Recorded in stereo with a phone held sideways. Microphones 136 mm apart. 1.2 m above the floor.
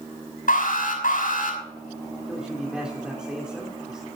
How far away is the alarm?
About 5.5 m.